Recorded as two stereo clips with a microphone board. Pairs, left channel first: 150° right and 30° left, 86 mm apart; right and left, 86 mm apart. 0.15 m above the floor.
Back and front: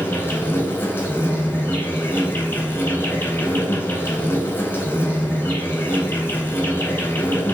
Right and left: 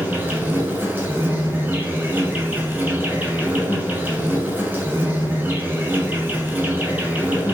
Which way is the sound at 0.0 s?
155° left.